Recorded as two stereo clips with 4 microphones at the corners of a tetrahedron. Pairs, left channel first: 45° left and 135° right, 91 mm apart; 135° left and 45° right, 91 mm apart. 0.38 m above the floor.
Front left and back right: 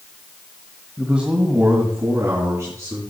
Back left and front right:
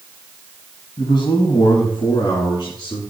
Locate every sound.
1.0 s a man speaking: 140° left, 1.6 m; by 3.0 s 170° left, 4 m